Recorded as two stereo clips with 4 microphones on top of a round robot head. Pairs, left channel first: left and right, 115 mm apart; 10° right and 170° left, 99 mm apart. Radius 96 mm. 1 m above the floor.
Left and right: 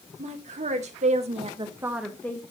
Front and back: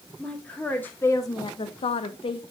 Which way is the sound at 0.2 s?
95° right.